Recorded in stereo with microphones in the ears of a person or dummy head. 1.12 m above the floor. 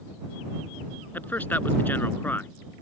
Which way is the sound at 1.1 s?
5° left (ahead or behind).